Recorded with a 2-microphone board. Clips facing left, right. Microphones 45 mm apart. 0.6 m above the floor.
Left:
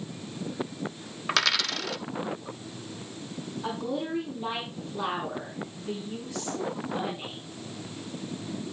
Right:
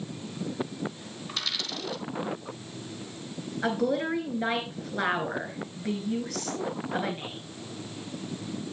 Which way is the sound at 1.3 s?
85° left.